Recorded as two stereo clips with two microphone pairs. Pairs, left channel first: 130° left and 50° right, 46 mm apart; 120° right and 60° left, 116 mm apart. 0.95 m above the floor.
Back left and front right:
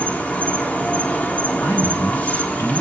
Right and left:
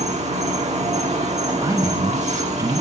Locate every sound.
0.0 s an insect: 75° left, 1.5 m
1.6 s a man speaking: 125° left, 6.5 m